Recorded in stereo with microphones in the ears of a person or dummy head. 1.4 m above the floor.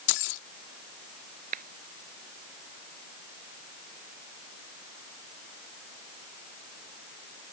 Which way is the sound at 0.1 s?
65° left (ahead or behind).